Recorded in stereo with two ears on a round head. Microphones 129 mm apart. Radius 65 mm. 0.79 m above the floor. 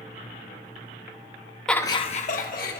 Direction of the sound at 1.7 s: 5° left (ahead or behind).